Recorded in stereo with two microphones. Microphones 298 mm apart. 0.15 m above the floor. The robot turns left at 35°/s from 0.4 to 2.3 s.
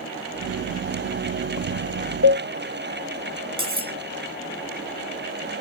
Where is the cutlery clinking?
20° right (ahead or behind), 0.6 m.